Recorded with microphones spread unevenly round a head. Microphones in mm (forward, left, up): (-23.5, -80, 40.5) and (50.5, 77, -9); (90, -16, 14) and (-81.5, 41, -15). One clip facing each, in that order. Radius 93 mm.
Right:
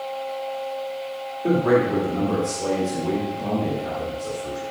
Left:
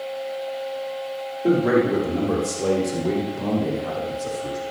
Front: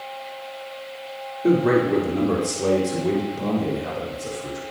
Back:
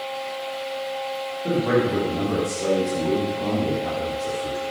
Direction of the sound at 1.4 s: 15° right.